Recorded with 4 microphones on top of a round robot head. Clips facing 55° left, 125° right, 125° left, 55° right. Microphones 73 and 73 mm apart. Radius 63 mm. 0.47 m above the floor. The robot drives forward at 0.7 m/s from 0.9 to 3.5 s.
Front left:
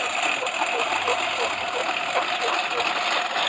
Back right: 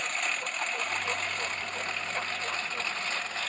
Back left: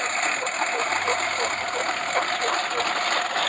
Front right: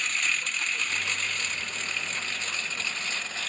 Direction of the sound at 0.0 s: 70° left.